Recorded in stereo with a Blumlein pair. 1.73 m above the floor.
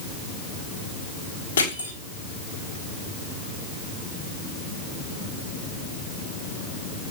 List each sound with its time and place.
1.6 s crushing: 70° left, 5.5 m